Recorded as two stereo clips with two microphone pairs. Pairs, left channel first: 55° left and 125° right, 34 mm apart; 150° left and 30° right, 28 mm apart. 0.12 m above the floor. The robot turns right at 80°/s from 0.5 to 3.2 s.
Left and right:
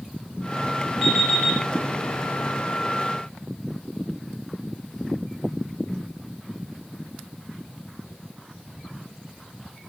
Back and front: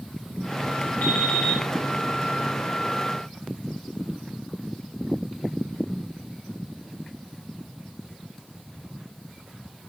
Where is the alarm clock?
150° left, 5 m; by 1.6 s 165° right, 5 m.